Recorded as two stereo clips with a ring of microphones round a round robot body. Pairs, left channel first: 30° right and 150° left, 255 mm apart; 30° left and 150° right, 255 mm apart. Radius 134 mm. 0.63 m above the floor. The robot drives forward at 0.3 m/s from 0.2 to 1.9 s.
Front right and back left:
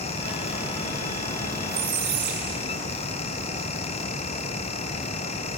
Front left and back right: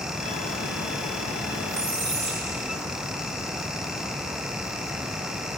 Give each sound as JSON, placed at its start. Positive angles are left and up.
{"t": 1.7, "sound": "a squeak", "azimuth_deg": 140, "distance_m": 7.5}